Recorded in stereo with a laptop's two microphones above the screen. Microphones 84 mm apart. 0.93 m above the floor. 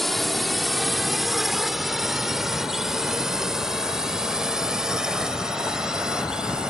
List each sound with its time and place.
0.0 s a drone: centre (ahead or behind); by 6.7 s 10° right (ahead or behind)